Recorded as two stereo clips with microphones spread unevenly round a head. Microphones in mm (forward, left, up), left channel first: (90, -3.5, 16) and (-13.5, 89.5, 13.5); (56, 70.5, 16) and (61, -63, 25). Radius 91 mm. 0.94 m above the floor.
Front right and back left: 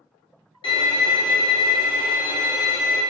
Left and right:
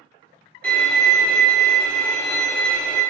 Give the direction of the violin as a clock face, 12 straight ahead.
12 o'clock.